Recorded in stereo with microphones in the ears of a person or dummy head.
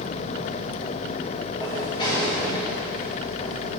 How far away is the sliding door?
About 2.5 m.